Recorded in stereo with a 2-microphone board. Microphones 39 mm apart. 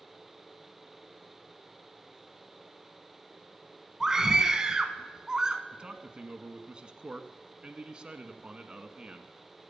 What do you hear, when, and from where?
4.0 s a scream: 15° right (ahead or behind), 1.2 m
5.7 s a man speaking: 25° right (ahead or behind), 1.3 m